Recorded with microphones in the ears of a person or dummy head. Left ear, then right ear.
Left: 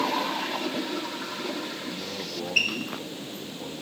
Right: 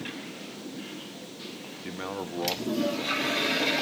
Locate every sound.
1.8 s a man speaking: 55° right (ahead or behind), 1.2 m